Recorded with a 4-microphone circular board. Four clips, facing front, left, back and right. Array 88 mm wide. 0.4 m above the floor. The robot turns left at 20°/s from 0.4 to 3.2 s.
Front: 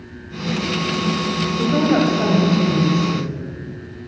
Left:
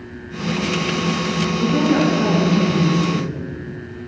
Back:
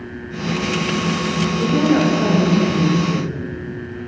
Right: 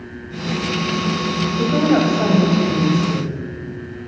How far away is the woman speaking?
About 2.5 m.